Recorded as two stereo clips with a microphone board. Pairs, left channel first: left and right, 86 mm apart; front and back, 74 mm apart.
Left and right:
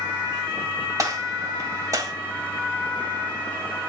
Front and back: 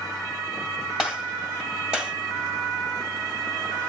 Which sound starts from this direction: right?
A gunshot, at 1.0 s.